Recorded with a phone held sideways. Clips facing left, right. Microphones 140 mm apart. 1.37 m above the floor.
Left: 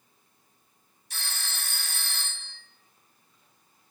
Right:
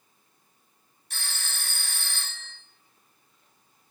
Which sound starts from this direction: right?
A phone ringing, at 1.1 s.